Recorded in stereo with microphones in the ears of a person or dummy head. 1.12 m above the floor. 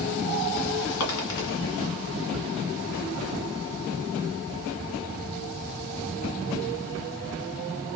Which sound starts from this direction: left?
A dropped coin, at 1.0 s.